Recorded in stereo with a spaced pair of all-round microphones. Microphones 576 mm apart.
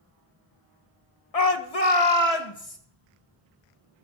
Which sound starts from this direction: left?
A shout, at 1.3 s.